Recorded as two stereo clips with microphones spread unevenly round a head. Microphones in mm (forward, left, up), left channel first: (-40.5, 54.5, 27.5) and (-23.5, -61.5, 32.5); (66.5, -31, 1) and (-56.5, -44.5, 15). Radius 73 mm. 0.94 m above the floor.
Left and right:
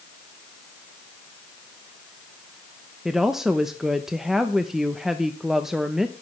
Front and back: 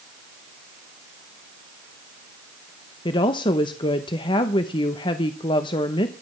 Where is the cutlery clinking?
I don't hear cutlery clinking.